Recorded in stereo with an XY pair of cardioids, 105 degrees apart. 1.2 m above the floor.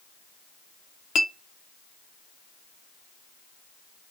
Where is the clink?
60° left, 0.6 m.